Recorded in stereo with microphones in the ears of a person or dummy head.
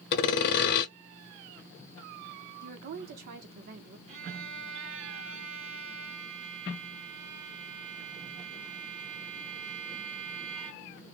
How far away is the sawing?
About 0.7 m.